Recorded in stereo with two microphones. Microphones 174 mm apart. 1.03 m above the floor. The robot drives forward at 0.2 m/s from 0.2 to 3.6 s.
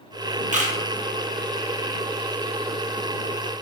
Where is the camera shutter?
45° right (ahead or behind), 0.7 m; by 0.7 s 50° right (ahead or behind), 0.6 m.